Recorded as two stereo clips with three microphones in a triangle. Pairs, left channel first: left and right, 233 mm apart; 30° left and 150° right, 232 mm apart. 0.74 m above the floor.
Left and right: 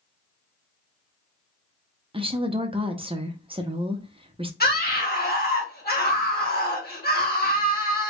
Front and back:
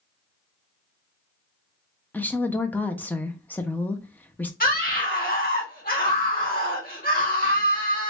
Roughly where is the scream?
Ahead left.